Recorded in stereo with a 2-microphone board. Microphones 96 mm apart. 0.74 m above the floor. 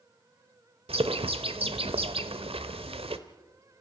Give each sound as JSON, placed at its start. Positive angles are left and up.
{"t": 0.9, "sound": "a bird", "side_deg": -85, "distance_m": 1.2}